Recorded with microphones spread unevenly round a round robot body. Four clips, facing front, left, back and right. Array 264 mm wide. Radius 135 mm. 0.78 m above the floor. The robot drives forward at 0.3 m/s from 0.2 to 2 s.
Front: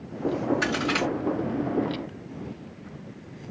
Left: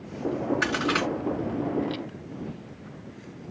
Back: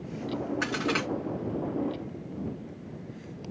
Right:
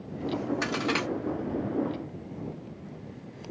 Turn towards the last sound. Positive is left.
turn(degrees=-120)